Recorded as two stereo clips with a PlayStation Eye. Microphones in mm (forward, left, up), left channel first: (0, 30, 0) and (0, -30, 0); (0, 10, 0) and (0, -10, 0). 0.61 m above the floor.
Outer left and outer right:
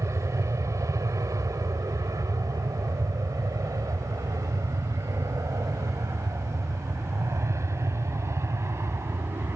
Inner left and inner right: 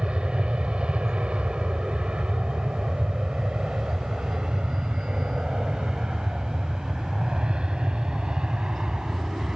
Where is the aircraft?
55° right (ahead or behind); by 9.6 s 45° right (ahead or behind).